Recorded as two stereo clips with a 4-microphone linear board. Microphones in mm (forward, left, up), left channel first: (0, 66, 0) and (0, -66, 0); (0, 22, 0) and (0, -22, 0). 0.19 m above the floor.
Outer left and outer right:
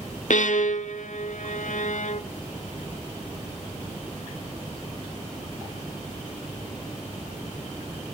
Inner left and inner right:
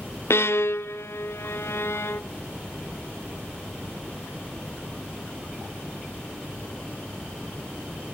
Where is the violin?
70° left (ahead or behind), 0.8 m.